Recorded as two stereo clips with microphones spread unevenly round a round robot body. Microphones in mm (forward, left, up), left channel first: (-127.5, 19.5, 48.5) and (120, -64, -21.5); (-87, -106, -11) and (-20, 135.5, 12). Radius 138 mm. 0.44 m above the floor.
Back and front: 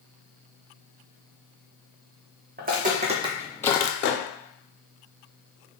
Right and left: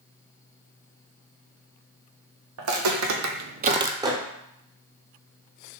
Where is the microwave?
140° left, 0.6 m.